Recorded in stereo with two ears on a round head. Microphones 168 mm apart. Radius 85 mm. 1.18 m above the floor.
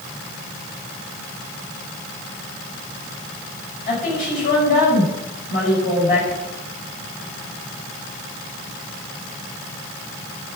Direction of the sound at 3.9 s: 50° left (ahead or behind).